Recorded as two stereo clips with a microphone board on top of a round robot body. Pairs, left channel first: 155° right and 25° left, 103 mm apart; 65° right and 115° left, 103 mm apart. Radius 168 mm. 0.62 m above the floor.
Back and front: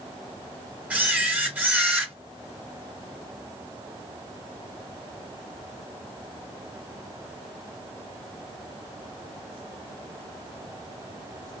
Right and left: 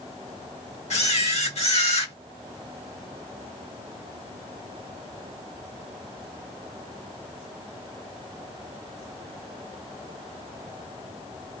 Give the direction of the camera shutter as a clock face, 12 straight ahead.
2 o'clock.